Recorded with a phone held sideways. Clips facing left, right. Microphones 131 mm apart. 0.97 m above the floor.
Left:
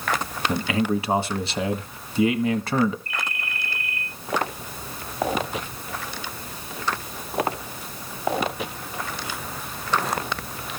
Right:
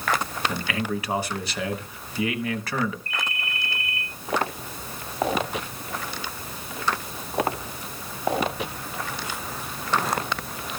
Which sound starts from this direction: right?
A ringtone, at 3.1 s.